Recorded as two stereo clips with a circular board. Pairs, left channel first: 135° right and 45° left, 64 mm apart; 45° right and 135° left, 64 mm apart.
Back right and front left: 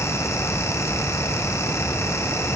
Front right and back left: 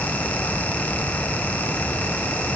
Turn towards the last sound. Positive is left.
No sound to turn to.